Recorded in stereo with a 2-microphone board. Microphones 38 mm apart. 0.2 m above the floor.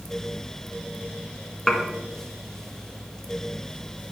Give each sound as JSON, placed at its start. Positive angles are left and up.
{"t": 1.7, "sound": "dishes clattering", "side_deg": 15, "distance_m": 1.4}